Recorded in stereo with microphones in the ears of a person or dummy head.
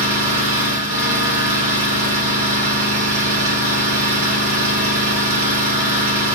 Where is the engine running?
25° right (ahead or behind), 0.8 m.